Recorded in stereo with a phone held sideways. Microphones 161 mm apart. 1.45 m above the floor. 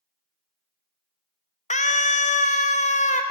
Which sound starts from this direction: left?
A scream, at 1.7 s.